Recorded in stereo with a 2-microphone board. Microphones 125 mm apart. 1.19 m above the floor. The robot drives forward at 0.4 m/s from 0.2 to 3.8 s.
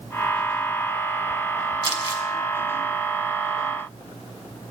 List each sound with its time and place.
1.8 s crumpling: 45° right (ahead or behind), 3 m